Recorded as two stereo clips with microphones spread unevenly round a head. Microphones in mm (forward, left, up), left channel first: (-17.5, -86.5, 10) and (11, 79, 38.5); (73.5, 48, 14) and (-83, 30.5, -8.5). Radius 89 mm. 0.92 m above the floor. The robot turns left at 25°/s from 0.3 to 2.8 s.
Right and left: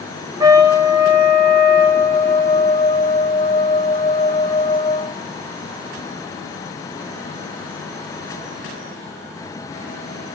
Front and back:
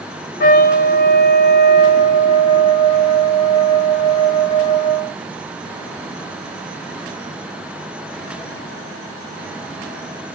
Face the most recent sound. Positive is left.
turn(degrees=-50)